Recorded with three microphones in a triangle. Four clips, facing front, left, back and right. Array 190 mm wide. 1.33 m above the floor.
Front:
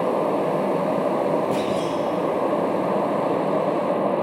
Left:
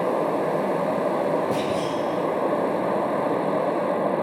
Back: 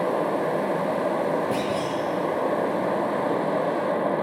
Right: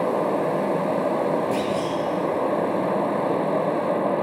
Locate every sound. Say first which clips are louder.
1.5 s a clunk: even, front 3 dB; 135° left, 8.5 m